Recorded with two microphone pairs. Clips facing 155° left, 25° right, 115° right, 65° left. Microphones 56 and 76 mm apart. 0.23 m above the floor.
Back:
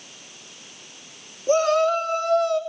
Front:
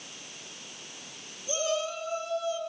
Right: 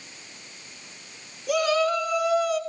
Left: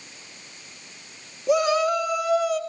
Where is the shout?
130° left, 2.5 m; by 2.6 s 160° left, 2.5 m.